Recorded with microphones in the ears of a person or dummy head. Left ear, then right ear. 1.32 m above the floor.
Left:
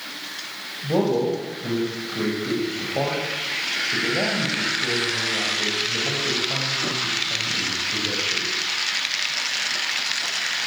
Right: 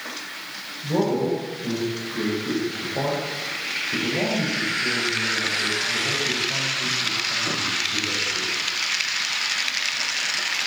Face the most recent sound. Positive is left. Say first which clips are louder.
# left 1 dB
turn(degrees=55)  # may be behind; listen again after turning